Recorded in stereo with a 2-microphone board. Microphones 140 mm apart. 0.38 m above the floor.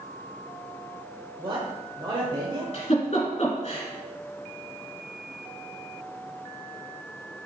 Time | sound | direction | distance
1.4 | a man speaking | 35° right (ahead or behind) | 1.2 m
2.7 | a giggle | 50° left (ahead or behind) | 2 m